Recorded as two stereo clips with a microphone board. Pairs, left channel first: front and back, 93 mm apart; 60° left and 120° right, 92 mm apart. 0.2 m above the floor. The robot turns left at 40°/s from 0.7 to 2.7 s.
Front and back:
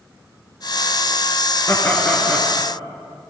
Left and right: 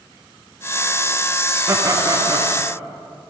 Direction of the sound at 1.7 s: 60° right.